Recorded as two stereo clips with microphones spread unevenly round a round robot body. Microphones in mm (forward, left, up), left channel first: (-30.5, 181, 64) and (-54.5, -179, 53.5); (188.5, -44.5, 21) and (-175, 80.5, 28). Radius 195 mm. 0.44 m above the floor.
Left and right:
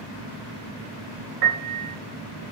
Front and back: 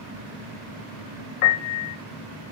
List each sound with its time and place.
1.4 s a piano: 30° right, 0.7 m